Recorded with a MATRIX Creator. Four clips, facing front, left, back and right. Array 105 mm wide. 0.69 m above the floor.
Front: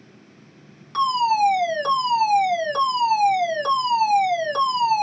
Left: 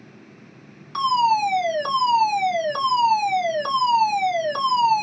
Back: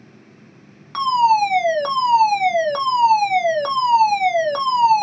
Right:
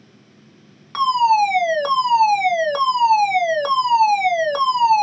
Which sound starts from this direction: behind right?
A fire alarm, at 0.9 s.